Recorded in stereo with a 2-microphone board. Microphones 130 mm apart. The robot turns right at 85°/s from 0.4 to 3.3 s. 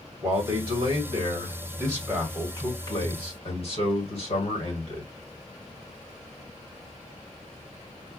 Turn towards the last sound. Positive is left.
turn(degrees=90)